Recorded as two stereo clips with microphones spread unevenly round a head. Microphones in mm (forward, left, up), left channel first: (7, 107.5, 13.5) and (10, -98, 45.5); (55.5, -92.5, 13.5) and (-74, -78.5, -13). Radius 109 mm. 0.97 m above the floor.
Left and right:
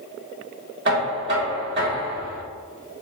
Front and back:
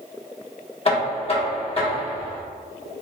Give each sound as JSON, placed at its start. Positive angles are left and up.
{"t": 0.8, "sound": "knocking", "azimuth_deg": -50, "distance_m": 1.5}